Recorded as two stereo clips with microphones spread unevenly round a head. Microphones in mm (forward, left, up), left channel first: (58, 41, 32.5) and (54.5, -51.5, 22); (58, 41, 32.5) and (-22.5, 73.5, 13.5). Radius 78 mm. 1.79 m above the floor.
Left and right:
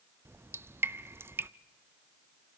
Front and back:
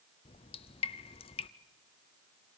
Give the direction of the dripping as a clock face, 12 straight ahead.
1 o'clock.